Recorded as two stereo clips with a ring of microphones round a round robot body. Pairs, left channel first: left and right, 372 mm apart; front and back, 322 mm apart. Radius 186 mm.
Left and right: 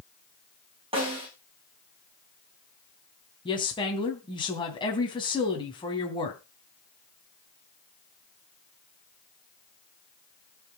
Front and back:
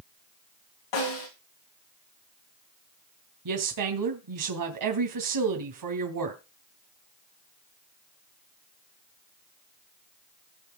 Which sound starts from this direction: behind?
A woman speaking, at 3.5 s.